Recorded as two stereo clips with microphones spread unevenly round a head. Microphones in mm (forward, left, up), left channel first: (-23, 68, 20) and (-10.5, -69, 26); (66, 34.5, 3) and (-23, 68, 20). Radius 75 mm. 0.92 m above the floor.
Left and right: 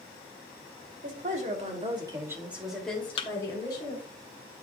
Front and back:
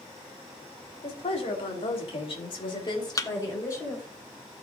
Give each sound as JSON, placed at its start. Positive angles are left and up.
{"t": 1.0, "sound": "a woman speaking", "azimuth_deg": -55, "distance_m": 3.0}
{"t": 3.2, "sound": "a thud", "azimuth_deg": 35, "distance_m": 0.9}